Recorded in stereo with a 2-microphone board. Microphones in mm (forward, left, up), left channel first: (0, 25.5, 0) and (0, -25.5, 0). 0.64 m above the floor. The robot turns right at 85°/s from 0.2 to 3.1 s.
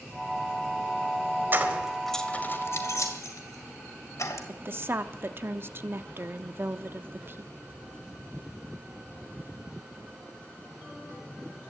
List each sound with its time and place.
1.5 s keys jangling: 45° right (ahead or behind), 1.7 m; by 4.4 s 85° left, 1.7 m
4.5 s a woman speaking: 50° right (ahead or behind), 0.7 m